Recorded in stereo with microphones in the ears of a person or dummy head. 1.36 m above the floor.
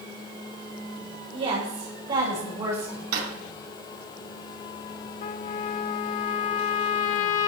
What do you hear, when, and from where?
1.3 s a woman speaking: 35° right (ahead or behind), 4.5 m; by 3.0 s 15° right (ahead or behind), 5 m
3.1 s a drawer: 60° right (ahead or behind), 3 m
5.2 s a trumpet: 45° left (ahead or behind), 0.6 m